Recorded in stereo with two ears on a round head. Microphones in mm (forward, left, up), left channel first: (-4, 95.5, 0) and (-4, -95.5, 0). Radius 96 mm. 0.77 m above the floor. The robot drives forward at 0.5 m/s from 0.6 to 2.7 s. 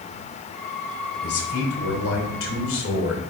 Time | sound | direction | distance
1.2 | a man speaking | 75° left (ahead or behind) | 3 m